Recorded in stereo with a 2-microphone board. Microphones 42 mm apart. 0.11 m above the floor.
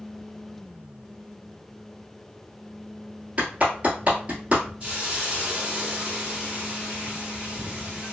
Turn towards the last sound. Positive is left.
turn(degrees=-30)  # may be behind; listen again after turning